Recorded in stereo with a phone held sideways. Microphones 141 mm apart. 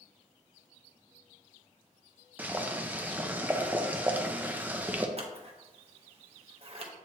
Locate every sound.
2.4 s boiling: 10° right (ahead or behind), 0.6 m
5.2 s scissors: 45° right (ahead or behind), 0.9 m